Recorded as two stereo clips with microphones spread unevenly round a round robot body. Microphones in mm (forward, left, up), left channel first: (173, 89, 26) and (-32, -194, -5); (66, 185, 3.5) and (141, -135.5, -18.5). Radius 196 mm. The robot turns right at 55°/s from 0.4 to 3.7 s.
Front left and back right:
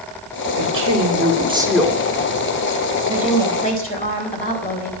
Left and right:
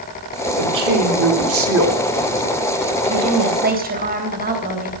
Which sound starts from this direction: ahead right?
A woman speaking, at 3.1 s.